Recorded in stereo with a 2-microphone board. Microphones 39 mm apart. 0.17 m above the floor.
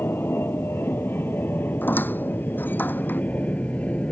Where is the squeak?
60° left (ahead or behind).